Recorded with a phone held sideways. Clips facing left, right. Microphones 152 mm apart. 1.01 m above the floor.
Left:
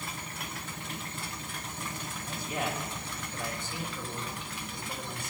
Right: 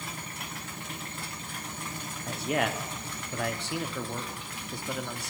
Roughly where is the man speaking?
Right.